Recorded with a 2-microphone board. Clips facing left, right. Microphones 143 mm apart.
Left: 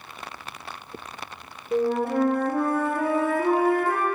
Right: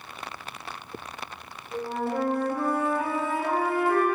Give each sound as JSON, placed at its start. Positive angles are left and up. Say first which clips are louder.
{"t": 1.7, "sound": "a flute", "louder": "left 6 dB", "side_deg": 55, "distance_m": 1.7}